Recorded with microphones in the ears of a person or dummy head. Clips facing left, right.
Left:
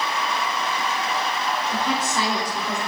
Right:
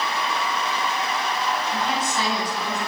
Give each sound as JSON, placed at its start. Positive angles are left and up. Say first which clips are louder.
{"t": 1.7, "sound": "a woman speaking", "louder": "left 1 dB", "side_deg": 70, "distance_m": 3.5}